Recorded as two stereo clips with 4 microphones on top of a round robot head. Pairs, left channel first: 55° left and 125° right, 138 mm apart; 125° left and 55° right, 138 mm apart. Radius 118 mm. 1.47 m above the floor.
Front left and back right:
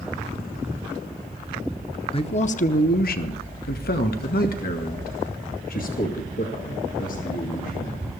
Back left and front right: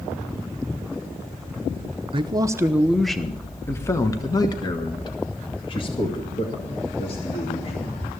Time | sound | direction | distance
2.1 | a man speaking | straight ahead | 0.7 m